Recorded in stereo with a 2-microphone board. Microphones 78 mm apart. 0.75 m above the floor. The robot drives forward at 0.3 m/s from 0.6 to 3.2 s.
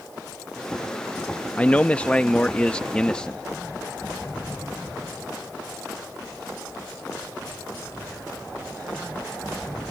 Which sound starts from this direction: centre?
A man speaking, at 1.6 s.